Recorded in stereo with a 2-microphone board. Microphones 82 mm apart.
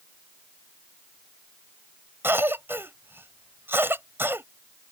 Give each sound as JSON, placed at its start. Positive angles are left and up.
{"t": 2.2, "sound": "a cough", "side_deg": -30}